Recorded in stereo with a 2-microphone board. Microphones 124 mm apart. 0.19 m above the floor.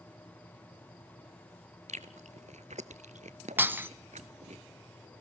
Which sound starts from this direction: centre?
Breaking glass, at 3.6 s.